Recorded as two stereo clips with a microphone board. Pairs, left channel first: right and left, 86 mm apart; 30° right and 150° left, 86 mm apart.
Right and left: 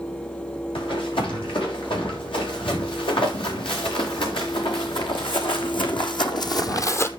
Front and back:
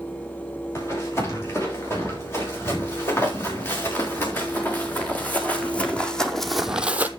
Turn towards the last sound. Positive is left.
turn(degrees=-145)